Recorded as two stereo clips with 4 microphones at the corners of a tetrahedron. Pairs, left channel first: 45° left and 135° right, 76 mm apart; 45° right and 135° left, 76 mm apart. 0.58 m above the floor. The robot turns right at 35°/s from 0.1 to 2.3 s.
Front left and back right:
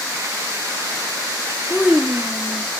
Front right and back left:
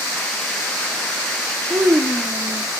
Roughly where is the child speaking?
Behind left.